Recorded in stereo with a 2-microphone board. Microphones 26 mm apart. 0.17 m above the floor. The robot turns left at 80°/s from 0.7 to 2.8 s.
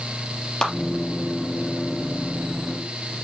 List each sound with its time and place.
0.6 s a clap: 30° left (ahead or behind), 3 m